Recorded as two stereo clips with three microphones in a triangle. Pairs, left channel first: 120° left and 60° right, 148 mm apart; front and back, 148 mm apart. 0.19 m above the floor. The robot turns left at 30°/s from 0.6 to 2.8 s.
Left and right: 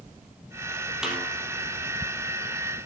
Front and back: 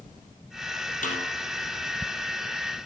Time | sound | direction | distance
1.0 | a snare drum | 25° left | 3.5 m